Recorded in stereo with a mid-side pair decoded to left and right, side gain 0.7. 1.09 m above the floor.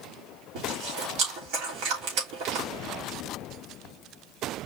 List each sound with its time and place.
0.6 s chewing: 65° right, 3 m